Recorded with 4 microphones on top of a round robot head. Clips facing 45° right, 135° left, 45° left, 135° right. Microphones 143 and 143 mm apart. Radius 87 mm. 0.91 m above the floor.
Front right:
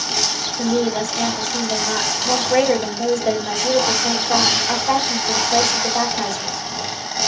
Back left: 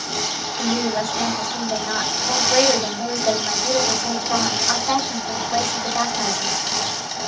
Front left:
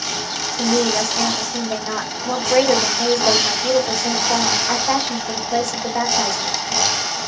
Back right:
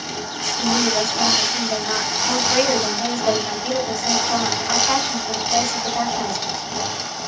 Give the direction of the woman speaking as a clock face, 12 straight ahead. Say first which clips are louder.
Front right 3 dB, front left 2 dB; 12 o'clock.